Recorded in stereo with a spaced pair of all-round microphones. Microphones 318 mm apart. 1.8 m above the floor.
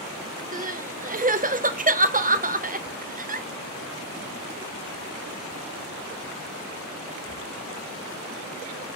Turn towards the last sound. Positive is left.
turn(degrees=-25)  # may be behind; listen again after turning